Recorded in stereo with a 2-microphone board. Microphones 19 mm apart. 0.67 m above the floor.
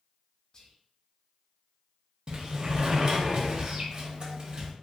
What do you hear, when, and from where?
0.5 s whispering: 30° left (ahead or behind), 0.5 m
2.3 s a sliding door: 45° right (ahead or behind), 0.7 m